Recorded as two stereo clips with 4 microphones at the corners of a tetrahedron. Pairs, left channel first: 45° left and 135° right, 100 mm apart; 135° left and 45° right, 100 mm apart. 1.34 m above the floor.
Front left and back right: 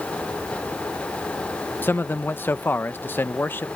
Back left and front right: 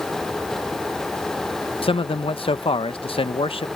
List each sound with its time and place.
1.8 s a man speaking: 115° left